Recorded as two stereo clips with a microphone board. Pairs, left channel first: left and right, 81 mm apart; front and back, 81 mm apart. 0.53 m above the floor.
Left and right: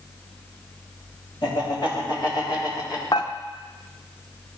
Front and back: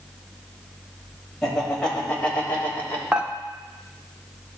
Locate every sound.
1.4 s laughter: 85° left, 3 m; by 3.0 s 60° left, 3 m
3.1 s dishes clattering: 105° left, 0.7 m